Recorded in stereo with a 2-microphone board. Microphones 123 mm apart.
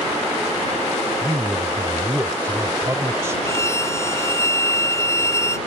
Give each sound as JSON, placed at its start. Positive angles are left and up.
{"t": 1.2, "sound": "a man speaking", "side_deg": -20}
{"t": 3.5, "sound": "a violin", "side_deg": 25}